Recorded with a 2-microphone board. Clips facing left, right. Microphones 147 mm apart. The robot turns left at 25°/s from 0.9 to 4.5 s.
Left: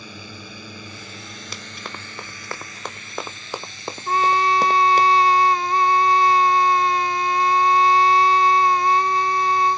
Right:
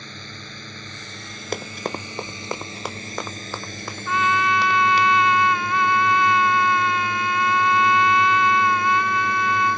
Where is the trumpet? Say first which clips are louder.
Left 3 dB; 40° left (ahead or behind); by 9.8 s 35° left (ahead or behind).